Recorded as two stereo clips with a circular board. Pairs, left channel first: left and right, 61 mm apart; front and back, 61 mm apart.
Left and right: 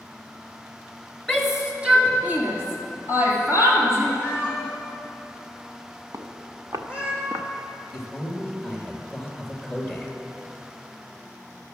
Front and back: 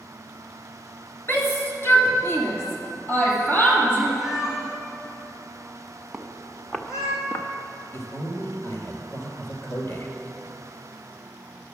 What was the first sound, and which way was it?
A shout, straight ahead.